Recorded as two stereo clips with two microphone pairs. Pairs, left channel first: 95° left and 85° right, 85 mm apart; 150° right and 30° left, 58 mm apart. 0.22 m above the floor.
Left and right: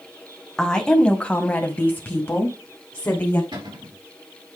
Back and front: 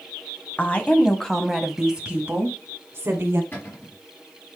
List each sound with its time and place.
0.6 s a woman speaking: 175° left, 1.4 m; by 3.4 s 45° left, 1.7 m
3.5 s a cupboard door: 100° right, 3.5 m